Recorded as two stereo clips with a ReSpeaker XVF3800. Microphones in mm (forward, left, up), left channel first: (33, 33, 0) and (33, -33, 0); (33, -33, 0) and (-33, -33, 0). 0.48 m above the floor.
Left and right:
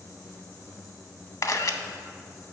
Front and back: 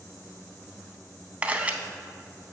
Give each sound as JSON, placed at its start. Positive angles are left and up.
{"t": 1.4, "sound": "a camera shutter", "azimuth_deg": 115, "distance_m": 0.5}